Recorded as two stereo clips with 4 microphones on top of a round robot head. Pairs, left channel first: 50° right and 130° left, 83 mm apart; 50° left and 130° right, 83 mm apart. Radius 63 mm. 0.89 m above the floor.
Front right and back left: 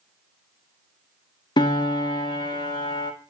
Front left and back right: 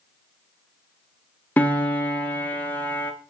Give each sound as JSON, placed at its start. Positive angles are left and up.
{"t": 1.6, "sound": "a piano", "azimuth_deg": -20, "distance_m": 1.5}